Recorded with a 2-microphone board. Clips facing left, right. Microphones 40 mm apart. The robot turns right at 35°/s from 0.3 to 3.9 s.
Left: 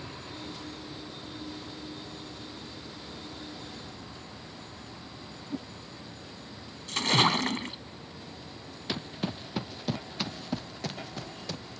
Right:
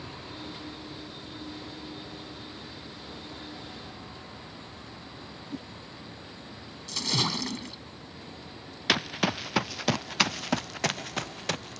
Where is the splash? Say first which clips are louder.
Left 5 dB; 40° left (ahead or behind).